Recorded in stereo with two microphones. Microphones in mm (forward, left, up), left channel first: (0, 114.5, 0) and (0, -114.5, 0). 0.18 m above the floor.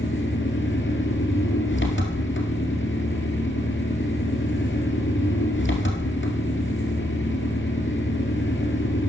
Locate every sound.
0.0 s an engine running: 55° left (ahead or behind), 1.8 m